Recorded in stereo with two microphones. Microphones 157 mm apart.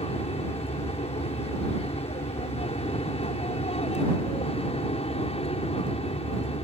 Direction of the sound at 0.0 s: 40° left (ahead or behind).